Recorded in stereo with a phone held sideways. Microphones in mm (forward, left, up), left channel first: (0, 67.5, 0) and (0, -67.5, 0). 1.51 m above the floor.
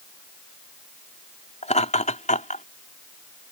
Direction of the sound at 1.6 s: 55° left (ahead or behind).